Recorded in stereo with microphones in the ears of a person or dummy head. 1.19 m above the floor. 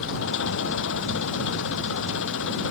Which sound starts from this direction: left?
An engine running, at 0.0 s.